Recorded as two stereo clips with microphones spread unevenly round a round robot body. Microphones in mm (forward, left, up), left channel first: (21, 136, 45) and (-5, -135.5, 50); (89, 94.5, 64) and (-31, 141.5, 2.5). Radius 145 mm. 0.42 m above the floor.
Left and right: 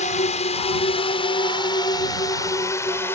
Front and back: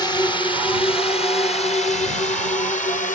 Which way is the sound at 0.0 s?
55° left.